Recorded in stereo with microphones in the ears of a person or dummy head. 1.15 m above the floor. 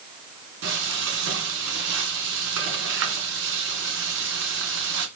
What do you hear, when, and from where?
0.6 s frying: 70° right (ahead or behind), 2.5 m